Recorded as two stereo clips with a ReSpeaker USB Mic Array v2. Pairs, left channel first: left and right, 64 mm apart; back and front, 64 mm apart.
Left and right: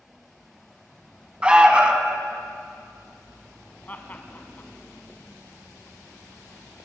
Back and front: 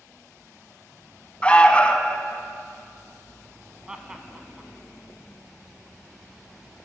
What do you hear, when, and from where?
1.4 s an alarm: 140° right, 1.0 m
3.9 s laughter: 60° left, 1.2 m